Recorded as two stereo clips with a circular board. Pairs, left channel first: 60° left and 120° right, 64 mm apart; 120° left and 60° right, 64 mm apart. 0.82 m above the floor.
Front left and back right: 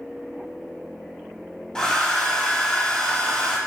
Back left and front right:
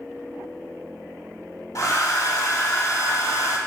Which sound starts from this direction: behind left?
A hair dryer, at 1.8 s.